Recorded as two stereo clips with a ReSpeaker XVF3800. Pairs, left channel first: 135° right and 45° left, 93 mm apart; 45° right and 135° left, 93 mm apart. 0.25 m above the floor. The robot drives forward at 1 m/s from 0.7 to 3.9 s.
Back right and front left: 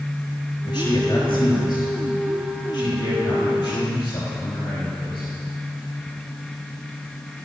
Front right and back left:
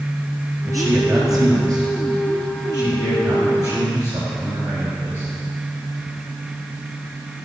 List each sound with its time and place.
0.7 s a man speaking: 175° right, 4 m